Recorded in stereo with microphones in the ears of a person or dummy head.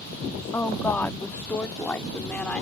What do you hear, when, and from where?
0.5 s a woman speaking: 10° left (ahead or behind); by 2.6 s 5° left (ahead or behind)